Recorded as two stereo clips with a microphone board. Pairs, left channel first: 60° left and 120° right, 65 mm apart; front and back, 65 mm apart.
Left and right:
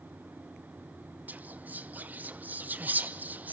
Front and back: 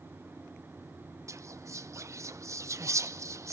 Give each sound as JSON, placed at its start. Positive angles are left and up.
{"t": 1.3, "sound": "whispering", "azimuth_deg": -175, "distance_m": 1.0}